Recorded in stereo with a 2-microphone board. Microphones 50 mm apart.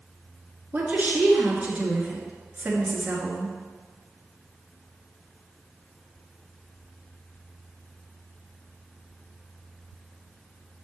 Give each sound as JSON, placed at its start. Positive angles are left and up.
{"t": 0.7, "sound": "a woman speaking", "side_deg": -30, "distance_m": 1.5}